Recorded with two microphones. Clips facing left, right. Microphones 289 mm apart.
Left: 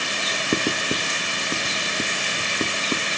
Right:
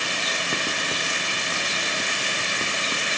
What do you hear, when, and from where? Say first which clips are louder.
0.5 s writing: left 10 dB; 45° left (ahead or behind)